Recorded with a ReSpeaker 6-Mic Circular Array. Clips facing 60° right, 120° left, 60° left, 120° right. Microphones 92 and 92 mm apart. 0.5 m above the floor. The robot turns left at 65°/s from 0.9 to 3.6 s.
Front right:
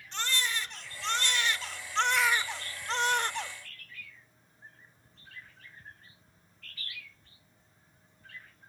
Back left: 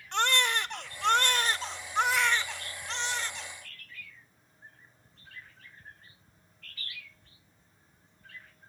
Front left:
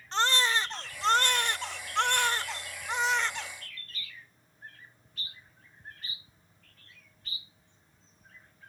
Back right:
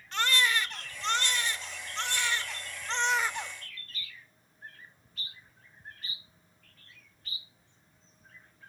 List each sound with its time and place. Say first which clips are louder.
0.1 s a baby crying: back left 7 dB, front left 1 dB; 115° left, 0.8 m; by 3.5 s 55° right, 0.8 m